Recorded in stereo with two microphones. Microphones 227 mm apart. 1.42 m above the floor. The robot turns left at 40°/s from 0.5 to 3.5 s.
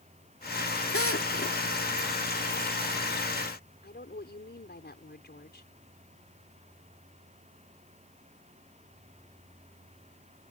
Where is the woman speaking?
45° left (ahead or behind).